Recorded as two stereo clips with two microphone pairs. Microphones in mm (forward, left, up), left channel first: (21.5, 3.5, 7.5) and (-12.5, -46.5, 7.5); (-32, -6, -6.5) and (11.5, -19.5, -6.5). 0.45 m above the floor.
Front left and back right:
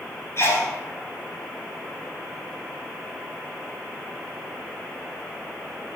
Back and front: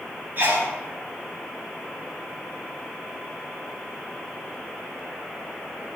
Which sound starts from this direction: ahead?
A sneeze, at 0.4 s.